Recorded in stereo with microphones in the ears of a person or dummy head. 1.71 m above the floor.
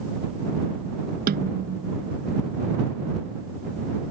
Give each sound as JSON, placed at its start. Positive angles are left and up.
{"t": 1.3, "sound": "a snare drum", "side_deg": -50}